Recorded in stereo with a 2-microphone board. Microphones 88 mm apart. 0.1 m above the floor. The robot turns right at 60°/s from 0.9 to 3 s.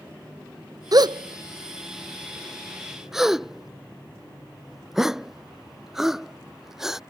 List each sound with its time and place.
0.9 s a gasp: 50° right (ahead or behind); by 7.0 s 5° right (ahead or behind)